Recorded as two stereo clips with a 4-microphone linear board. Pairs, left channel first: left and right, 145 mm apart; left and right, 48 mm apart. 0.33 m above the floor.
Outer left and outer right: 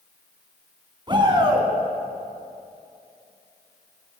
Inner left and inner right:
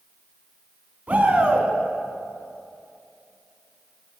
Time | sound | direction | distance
1.1 | a shout | 35° right (ahead or behind) | 3.5 m